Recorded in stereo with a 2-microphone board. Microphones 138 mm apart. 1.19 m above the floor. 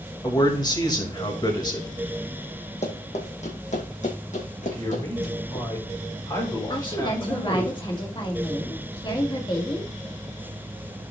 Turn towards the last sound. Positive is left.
turn(degrees=35)  # may be behind; listen again after turning